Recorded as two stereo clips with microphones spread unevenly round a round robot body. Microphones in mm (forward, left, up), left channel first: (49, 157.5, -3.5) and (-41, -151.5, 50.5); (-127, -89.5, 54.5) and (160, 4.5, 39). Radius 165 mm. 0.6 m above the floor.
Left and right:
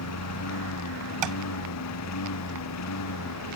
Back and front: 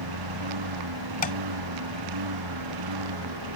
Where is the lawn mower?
30° left.